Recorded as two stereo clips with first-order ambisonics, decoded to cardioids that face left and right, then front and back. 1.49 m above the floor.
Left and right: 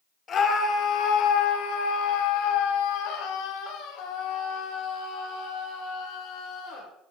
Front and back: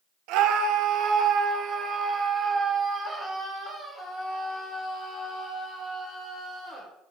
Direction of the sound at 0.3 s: 150° left.